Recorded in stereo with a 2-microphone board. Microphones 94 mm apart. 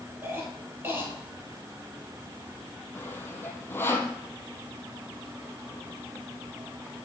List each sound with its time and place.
0.2 s a cough: 25° right (ahead or behind), 4.5 m
3.0 s sawing: 25° left (ahead or behind), 1.4 m